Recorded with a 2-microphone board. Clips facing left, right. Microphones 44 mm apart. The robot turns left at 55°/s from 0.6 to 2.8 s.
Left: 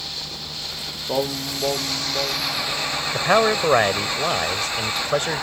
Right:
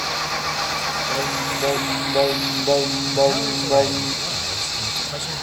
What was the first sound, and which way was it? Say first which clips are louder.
An engine running: right 10 dB; 80° right.